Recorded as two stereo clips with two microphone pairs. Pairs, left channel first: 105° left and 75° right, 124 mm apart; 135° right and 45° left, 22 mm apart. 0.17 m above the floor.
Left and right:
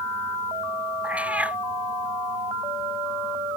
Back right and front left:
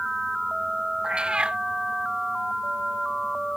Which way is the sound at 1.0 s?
5° left.